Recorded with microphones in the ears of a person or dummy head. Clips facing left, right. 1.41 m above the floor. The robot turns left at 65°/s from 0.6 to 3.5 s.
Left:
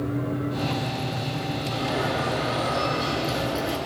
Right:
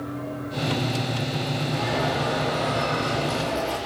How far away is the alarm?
About 7 m.